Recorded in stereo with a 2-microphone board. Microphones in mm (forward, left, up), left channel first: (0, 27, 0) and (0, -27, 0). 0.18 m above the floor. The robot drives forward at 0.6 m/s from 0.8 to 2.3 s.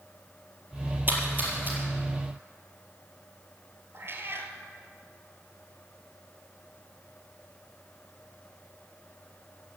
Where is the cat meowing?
45° right (ahead or behind), 1.5 m.